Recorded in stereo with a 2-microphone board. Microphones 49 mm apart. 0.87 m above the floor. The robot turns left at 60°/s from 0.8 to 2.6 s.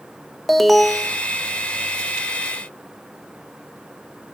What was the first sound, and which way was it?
An alarm, centre (ahead or behind).